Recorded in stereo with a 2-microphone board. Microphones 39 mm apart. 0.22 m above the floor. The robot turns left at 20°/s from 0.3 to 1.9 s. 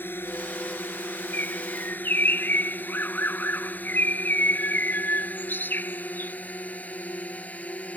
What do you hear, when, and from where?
0.0 s a drone: 65° left (ahead or behind); by 8.0 s 35° left (ahead or behind)
1.3 s a bird: 55° left (ahead or behind)